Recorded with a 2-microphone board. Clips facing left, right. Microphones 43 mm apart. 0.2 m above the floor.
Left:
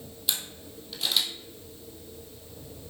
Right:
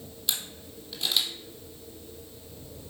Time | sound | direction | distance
0.3 | a camera shutter | 5° left (ahead or behind) | 2 m